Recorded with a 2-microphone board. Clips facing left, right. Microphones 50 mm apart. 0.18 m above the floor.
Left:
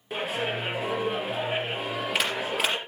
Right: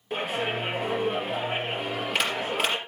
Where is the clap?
Centre (ahead or behind), 3.5 m.